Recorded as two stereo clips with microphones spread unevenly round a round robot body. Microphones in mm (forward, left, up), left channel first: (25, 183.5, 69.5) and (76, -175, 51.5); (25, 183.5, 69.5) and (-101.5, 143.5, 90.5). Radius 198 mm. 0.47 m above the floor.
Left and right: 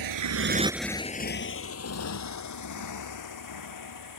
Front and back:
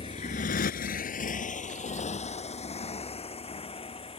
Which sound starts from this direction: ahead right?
A motorcycle, at 0.0 s.